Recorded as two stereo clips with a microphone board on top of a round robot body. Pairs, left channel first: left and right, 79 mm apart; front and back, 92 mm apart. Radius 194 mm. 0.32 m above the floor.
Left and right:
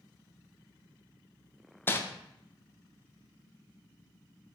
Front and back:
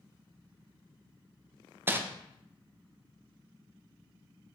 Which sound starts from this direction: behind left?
Crumpling, at 1.9 s.